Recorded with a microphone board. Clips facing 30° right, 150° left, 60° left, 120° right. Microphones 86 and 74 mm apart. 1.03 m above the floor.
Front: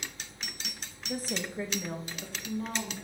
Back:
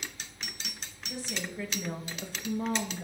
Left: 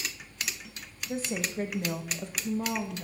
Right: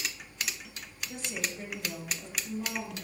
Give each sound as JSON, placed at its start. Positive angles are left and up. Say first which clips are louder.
{"t": 1.1, "sound": "a woman speaking", "louder": "front 3 dB, left 6 dB", "azimuth_deg": 10, "distance_m": 1.6}